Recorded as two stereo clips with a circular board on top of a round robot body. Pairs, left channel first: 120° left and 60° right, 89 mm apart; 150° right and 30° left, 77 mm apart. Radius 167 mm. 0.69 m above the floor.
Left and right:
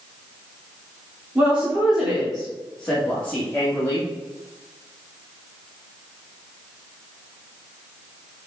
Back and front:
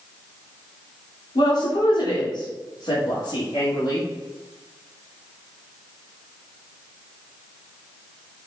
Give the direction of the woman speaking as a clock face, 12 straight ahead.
5 o'clock.